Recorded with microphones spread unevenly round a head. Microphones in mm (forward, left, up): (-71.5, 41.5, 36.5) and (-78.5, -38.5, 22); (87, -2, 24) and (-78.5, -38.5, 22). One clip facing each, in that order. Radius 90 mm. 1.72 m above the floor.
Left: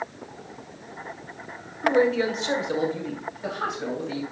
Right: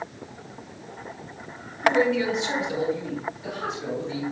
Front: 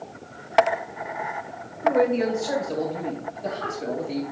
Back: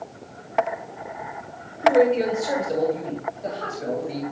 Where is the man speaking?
140° left, 1.5 m; by 4.2 s 110° left, 3 m.